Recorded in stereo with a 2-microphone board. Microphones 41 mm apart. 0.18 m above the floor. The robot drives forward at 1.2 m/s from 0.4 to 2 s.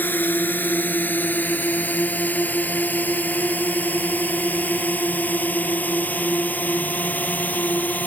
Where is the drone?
50° left (ahead or behind); by 8.1 s 45° left (ahead or behind).